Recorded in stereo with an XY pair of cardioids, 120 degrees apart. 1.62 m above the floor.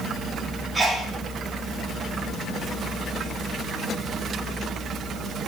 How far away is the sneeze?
About 5 m.